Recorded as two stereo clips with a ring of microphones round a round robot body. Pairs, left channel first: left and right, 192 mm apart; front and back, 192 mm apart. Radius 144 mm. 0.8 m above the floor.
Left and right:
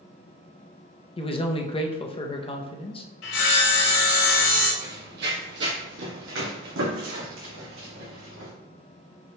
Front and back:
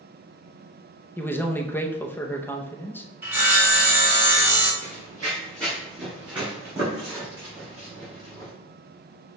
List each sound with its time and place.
1.2 s a man speaking: 70° left, 0.7 m
3.2 s sawing: 100° left, 1.9 m
4.8 s running footsteps: 65° right, 1.3 m; by 8.5 s 110° right, 3 m